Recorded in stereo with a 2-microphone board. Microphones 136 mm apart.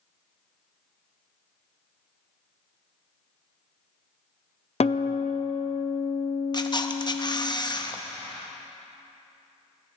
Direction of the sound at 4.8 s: 55° left (ahead or behind).